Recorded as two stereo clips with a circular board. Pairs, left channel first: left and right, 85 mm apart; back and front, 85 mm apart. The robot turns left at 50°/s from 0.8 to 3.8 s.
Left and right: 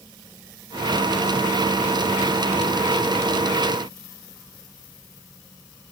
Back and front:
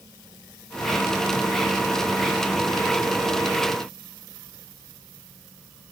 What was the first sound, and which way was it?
Only background noise.